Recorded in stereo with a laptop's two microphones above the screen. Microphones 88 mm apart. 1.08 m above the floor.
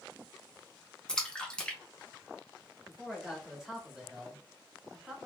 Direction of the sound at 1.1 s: 10° left (ahead or behind).